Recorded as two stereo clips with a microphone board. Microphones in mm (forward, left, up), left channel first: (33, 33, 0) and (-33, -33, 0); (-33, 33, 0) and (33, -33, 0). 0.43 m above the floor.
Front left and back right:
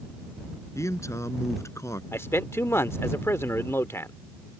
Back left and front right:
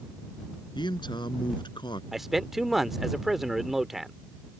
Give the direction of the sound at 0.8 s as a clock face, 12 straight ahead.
9 o'clock.